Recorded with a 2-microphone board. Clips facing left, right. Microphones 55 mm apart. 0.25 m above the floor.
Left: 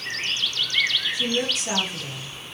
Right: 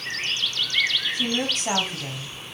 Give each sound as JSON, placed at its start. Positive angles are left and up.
{"t": 1.1, "sound": "a woman speaking", "side_deg": -45, "distance_m": 1.5}